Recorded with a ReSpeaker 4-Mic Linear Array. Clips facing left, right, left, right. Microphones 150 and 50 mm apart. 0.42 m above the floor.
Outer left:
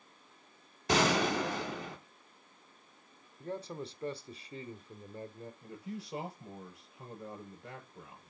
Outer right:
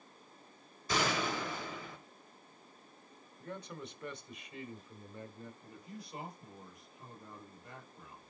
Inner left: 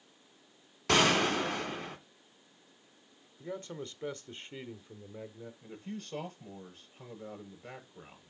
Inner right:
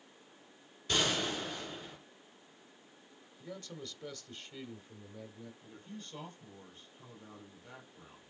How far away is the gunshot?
About 2.5 m.